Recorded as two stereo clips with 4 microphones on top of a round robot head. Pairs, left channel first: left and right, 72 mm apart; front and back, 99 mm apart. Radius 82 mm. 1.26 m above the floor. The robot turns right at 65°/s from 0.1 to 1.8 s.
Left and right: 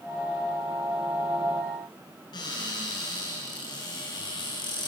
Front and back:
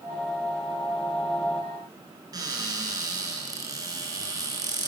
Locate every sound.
2.3 s a cupboard door: 130° left, 8 m